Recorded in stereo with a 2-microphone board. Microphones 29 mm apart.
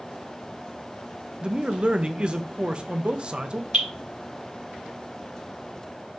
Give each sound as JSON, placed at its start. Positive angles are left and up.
{"t": 1.4, "sound": "a man speaking", "side_deg": -35, "distance_m": 0.6}
{"t": 3.7, "sound": "dripping", "side_deg": -35, "distance_m": 2.0}